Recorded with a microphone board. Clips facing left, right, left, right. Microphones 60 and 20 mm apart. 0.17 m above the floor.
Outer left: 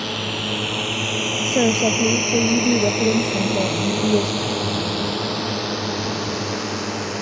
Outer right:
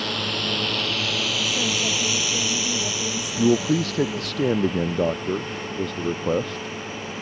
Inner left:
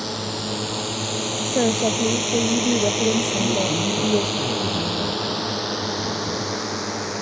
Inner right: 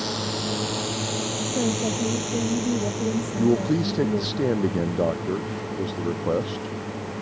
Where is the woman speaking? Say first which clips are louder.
Outer left 7 dB, inner left 6 dB; 45° left (ahead or behind).